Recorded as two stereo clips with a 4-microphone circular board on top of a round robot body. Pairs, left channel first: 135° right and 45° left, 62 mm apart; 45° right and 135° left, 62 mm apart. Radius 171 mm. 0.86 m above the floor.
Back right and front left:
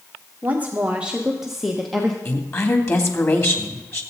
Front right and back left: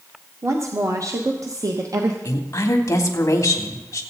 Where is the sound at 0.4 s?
100° left, 1.5 m; by 2.1 s 140° left, 1.6 m.